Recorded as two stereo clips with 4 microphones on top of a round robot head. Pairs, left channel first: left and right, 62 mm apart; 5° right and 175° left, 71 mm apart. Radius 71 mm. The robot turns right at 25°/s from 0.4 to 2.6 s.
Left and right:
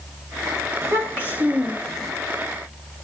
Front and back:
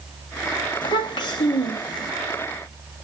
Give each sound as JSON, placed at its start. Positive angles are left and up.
{"t": 0.8, "sound": "a child speaking", "azimuth_deg": -30, "distance_m": 1.2}